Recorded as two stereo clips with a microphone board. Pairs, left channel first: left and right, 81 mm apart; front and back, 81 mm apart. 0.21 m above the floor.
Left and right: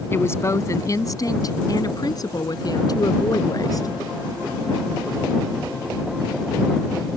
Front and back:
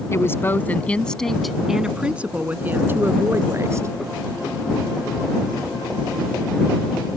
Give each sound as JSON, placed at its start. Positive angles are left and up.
{"t": 0.1, "sound": "a woman speaking", "azimuth_deg": 40}